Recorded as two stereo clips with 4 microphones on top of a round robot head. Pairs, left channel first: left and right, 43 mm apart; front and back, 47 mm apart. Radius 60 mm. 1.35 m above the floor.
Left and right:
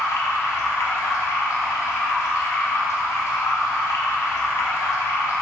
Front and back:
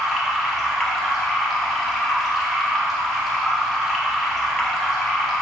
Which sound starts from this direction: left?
Running water, at 0.0 s.